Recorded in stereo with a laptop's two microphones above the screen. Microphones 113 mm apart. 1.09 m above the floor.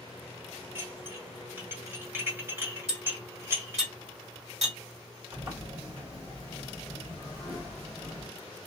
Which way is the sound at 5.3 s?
65° right (ahead or behind).